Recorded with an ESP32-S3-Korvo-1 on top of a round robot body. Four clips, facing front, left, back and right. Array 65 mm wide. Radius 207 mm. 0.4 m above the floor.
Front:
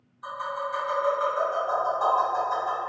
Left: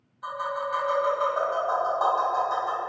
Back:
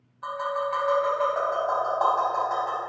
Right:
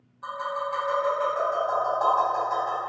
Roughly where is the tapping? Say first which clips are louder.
Even, back 3 dB; behind.